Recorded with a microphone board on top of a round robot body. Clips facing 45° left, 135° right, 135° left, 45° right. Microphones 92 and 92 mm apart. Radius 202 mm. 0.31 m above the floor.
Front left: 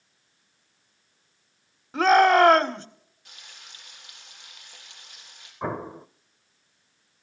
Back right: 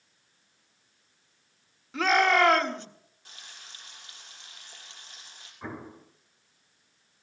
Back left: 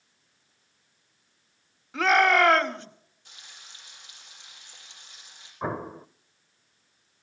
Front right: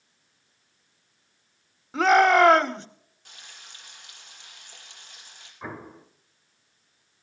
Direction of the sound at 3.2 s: 80° right.